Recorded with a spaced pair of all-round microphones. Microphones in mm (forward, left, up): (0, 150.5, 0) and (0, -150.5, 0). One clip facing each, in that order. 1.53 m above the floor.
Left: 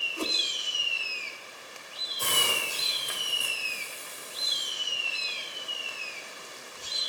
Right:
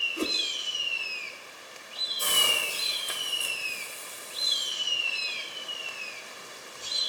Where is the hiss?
75° left (ahead or behind), 3.5 m.